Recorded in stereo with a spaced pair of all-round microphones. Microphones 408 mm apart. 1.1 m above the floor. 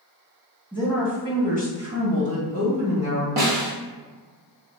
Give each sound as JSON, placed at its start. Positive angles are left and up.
{"t": 0.7, "sound": "a woman speaking", "side_deg": 15, "distance_m": 1.0}
{"t": 3.4, "sound": "a snare drum", "side_deg": -65, "distance_m": 0.9}